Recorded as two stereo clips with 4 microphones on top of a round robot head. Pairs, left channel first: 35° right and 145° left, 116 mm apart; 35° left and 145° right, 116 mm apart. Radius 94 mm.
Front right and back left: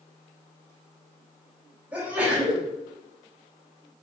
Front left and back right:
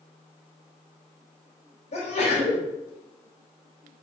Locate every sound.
1.9 s a sneeze: 65° left, 3.5 m